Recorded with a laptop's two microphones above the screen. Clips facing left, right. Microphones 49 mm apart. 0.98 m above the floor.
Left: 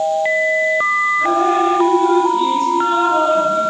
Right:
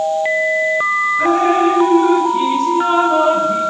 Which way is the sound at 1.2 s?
90° right.